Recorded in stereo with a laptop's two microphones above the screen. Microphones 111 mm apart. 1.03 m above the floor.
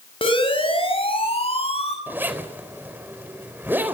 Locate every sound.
0.2 s a siren: 50° left (ahead or behind), 5.5 m; by 2.0 s 60° left (ahead or behind), 7 m
2.1 s a zipper: 15° right (ahead or behind), 4 m